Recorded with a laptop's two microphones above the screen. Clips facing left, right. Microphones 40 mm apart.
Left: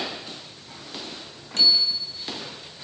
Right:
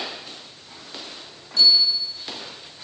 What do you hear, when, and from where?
1.6 s a bicycle bell: 50° left (ahead or behind), 5.5 m